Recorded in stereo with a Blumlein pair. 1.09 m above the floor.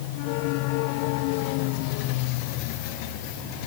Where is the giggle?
I don't hear a giggle.